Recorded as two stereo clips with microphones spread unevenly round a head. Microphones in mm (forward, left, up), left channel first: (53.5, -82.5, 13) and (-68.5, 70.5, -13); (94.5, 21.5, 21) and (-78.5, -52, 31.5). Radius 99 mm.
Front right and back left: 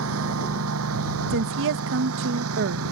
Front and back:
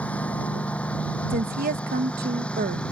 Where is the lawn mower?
105° left; by 2.9 s 110° left.